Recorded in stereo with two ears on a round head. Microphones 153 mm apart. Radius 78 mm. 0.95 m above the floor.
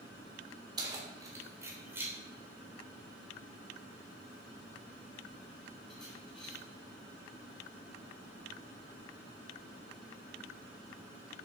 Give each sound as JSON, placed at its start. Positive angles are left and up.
{"t": 0.8, "sound": "keys jangling", "side_deg": -25, "distance_m": 2.5}